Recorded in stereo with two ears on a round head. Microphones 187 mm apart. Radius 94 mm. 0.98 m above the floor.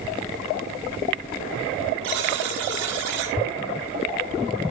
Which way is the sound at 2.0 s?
60° right (ahead or behind).